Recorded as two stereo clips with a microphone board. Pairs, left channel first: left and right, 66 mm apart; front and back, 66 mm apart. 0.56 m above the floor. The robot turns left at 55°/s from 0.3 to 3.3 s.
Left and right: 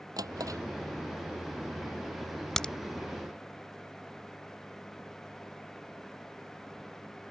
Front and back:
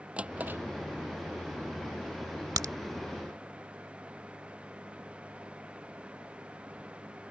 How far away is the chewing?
I don't hear chewing.